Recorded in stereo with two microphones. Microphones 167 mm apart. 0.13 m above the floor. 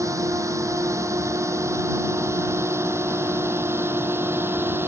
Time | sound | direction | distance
0.0 | a drone | 15° right (ahead or behind) | ?